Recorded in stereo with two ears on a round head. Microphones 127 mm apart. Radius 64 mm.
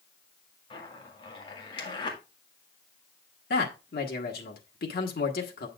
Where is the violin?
I don't hear a violin.